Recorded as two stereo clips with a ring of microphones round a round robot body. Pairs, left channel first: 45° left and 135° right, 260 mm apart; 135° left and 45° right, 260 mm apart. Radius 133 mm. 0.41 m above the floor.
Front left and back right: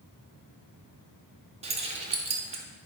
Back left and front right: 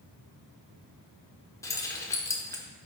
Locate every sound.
1.6 s keys jangling: 160° right, 0.6 m